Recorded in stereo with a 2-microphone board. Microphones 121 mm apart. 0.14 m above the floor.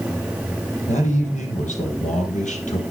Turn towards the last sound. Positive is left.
turn(degrees=70)  # may be behind; listen again after turning